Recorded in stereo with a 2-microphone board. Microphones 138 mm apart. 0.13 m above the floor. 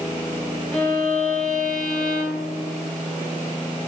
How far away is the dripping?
I don't hear dripping.